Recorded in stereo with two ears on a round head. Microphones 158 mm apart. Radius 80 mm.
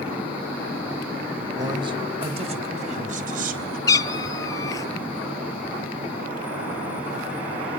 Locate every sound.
1.6 s a man speaking: 25° right (ahead or behind), 3 m; by 3.8 s 55° right (ahead or behind), 3.5 m
3.9 s a cat meowing: 20° left (ahead or behind), 0.7 m